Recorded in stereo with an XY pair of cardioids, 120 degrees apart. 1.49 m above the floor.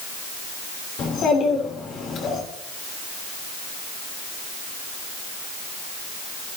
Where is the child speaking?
65° left, 3.5 m.